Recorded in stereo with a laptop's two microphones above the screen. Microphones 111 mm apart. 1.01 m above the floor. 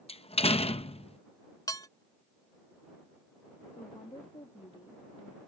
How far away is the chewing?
I don't hear chewing.